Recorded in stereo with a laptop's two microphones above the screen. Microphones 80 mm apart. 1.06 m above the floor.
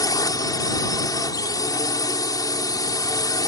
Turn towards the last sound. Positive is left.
turn(degrees=50)  # may be behind; listen again after turning